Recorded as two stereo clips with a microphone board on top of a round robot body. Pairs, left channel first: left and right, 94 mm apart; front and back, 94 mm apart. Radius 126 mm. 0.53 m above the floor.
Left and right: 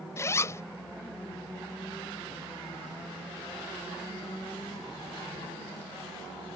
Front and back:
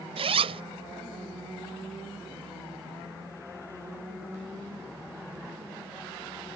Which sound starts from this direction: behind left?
A zipper, at 0.2 s.